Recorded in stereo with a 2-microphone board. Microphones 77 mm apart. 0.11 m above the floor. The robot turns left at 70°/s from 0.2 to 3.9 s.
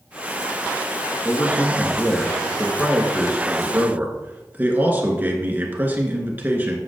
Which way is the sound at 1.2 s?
25° left (ahead or behind).